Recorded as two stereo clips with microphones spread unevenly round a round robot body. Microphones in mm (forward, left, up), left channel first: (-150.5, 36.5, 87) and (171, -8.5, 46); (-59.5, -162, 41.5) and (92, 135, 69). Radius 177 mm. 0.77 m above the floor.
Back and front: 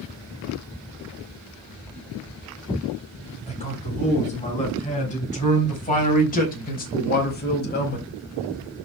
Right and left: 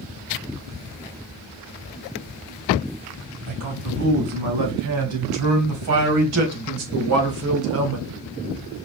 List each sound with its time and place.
3.5 s a man speaking: 100° left, 6 m; by 8.1 s 115° left, 2 m